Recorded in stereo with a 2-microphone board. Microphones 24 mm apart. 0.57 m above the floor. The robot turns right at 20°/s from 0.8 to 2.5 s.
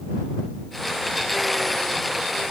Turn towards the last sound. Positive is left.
No sound to turn to.